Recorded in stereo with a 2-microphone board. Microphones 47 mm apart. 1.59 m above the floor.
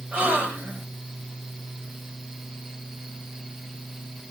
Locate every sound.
0.1 s a gasp: 30° right (ahead or behind), 1.6 m